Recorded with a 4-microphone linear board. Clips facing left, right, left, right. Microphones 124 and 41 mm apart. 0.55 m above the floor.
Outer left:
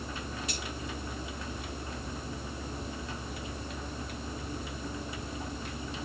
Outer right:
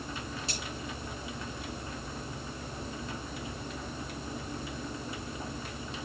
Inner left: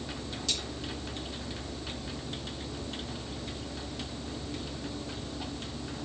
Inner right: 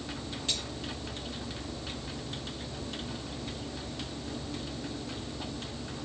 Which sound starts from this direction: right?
Cutlery clinking, at 0.5 s.